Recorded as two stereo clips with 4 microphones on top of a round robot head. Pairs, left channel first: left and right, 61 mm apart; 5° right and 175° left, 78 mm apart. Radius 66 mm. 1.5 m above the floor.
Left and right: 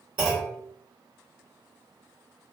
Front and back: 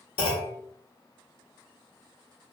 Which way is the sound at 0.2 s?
15° right.